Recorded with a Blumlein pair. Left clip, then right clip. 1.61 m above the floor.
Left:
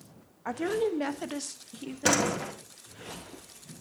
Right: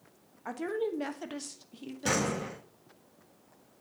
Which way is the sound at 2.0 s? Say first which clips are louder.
Left 4 dB; 60° left.